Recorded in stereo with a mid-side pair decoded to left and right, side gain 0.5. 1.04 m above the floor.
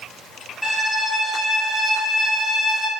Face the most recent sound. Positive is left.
turn(degrees=-5)